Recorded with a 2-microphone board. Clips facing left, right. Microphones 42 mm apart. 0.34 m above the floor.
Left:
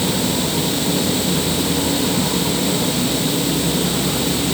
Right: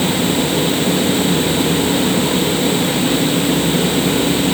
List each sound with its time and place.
Only background noise.